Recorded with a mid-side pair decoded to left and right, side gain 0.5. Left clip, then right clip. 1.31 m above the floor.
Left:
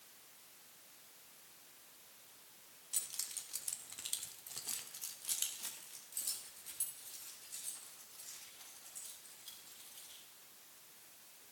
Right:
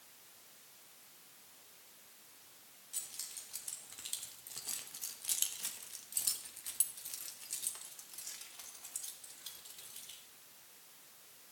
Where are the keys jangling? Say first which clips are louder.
Left 3 dB; 40° left, 1.4 m; by 10.2 s 80° right, 3 m.